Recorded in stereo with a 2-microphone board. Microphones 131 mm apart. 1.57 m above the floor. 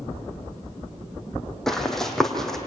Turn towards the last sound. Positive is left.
turn(degrees=5)  # may be behind; listen again after turning